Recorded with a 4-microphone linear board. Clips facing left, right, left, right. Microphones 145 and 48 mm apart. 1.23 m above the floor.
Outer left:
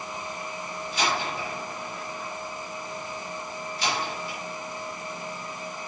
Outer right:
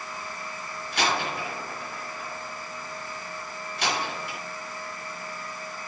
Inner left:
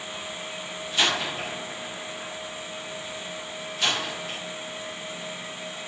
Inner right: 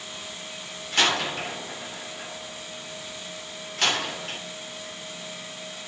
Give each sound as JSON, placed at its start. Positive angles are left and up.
{"t": 0.9, "sound": "a door slam", "side_deg": -70, "distance_m": 3.5}